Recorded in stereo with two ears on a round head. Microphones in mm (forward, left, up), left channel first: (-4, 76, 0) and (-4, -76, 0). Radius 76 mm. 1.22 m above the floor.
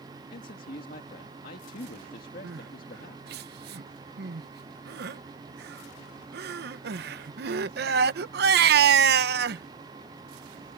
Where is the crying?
65° right (ahead or behind).